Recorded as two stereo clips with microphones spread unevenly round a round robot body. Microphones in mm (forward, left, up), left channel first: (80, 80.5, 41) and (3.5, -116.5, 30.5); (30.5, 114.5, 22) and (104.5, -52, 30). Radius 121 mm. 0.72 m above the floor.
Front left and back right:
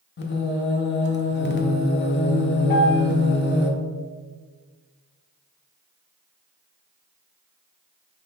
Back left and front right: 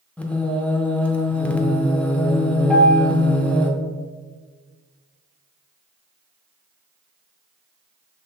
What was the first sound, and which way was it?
Singing, 30° left.